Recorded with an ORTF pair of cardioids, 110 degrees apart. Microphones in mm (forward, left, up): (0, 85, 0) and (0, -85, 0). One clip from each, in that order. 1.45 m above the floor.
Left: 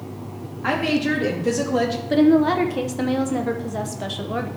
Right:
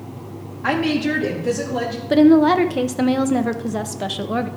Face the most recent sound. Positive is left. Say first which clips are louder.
# right 4 dB
turn(degrees=-20)